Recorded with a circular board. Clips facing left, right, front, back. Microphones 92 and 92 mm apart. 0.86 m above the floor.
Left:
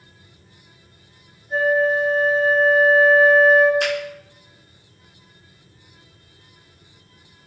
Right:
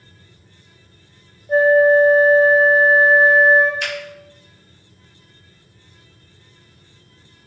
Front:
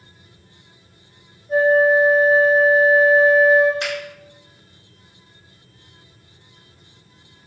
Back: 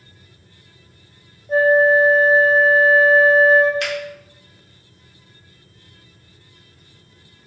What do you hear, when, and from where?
1.5 s a flute: 125° right, 0.8 m
3.8 s a finger snap: 60° left, 2 m